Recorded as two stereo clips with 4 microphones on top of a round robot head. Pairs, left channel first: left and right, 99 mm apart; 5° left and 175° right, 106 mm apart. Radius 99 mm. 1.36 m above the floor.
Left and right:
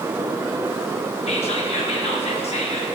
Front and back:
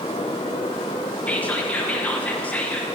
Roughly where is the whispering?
Left.